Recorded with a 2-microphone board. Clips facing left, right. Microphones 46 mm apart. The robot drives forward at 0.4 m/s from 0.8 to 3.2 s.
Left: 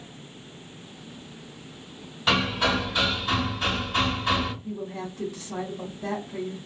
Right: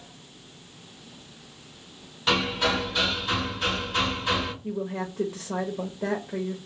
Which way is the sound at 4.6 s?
80° right.